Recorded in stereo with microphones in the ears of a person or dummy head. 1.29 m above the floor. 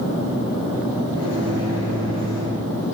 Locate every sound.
1.1 s a microwave: 65° left (ahead or behind), 4 m